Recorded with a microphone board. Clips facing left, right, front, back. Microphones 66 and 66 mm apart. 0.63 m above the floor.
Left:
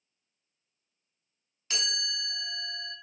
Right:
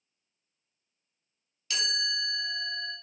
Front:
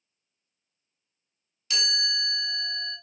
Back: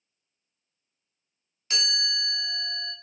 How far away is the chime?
About 1.0 m.